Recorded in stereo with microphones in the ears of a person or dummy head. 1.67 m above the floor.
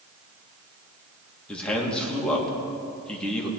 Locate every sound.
1.5 s a man speaking: 5° left (ahead or behind), 3 m